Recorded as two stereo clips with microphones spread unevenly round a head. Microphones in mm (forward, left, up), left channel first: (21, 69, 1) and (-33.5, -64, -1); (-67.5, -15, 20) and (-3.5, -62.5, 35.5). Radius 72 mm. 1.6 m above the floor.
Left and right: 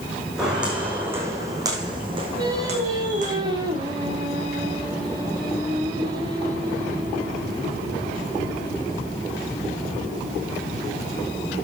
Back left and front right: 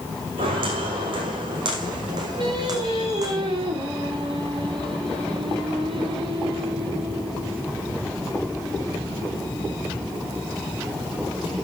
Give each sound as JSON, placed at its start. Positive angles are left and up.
{"t": 0.4, "sound": "footsteps", "azimuth_deg": -25, "distance_m": 5.5}
{"t": 2.4, "sound": "singing", "azimuth_deg": -50, "distance_m": 4.0}